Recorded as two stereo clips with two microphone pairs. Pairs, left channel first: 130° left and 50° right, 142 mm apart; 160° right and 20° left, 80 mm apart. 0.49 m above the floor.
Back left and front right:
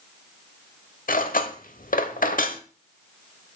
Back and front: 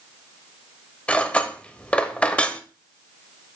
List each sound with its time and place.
1.1 s cutlery clinking: 125° left, 1.0 m